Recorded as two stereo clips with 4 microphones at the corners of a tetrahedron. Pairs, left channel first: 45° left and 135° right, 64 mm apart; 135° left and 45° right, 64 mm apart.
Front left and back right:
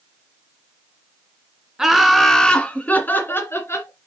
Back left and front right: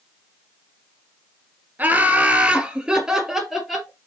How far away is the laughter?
About 1.8 m.